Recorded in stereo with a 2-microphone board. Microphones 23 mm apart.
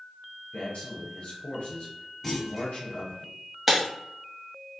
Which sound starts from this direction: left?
A man speaking, at 0.5 s.